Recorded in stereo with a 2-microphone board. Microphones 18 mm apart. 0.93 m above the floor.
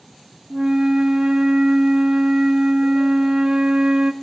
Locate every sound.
0.5 s a flute: 60° right (ahead or behind), 1.4 m